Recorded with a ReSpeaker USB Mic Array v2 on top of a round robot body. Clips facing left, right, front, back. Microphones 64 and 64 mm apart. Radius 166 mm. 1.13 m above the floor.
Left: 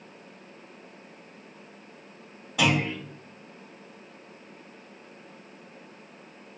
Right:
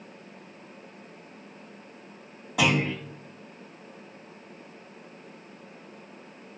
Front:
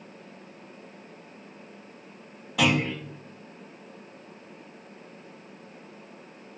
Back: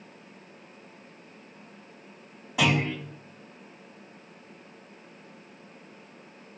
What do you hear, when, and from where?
2.6 s a clunk: 105° right, 0.9 m